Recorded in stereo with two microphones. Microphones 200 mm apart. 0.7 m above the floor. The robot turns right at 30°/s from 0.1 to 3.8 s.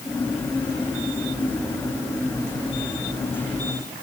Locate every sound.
Only background noise.